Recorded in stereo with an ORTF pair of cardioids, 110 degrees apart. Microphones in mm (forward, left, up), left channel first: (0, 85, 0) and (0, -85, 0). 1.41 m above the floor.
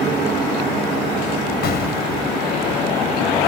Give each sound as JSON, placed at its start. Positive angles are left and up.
{"t": 1.6, "sound": "an explosion", "azimuth_deg": 60}